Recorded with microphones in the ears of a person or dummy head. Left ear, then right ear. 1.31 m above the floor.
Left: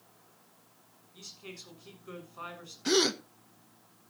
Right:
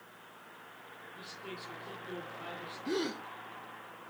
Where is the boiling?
No boiling in this recording.